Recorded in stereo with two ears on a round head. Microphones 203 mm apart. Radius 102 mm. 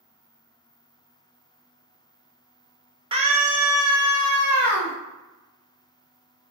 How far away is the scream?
About 1.0 m.